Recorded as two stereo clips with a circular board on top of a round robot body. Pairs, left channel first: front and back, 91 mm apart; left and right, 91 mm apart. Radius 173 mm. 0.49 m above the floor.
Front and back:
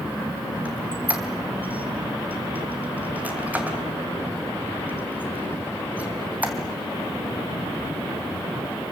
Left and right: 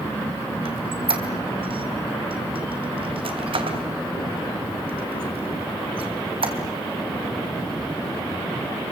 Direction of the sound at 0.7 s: 105° right.